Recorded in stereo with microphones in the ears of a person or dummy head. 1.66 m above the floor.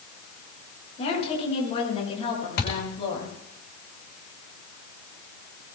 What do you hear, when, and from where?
1.0 s a woman speaking: 35° left (ahead or behind), 7 m; by 3.4 s 30° left (ahead or behind), 8.5 m
2.6 s a thud: 60° left (ahead or behind), 5 m